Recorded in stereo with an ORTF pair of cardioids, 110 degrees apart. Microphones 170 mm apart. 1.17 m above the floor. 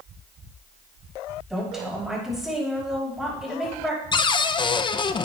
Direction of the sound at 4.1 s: 30° left.